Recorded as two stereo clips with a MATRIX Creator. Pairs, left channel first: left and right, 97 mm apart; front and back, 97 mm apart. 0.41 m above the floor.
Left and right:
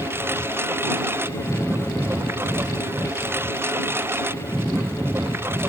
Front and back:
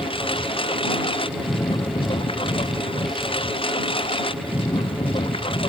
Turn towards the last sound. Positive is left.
turn(degrees=-25)